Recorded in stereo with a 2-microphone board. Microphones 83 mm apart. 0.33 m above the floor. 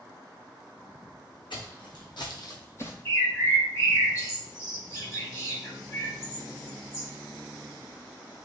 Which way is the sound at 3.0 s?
30° left (ahead or behind).